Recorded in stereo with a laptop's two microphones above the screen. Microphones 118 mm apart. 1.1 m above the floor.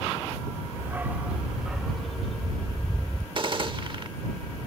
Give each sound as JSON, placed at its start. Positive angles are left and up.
{"t": 0.8, "sound": "a dog barking", "side_deg": -20}
{"t": 3.4, "sound": "a gunshot", "side_deg": -45}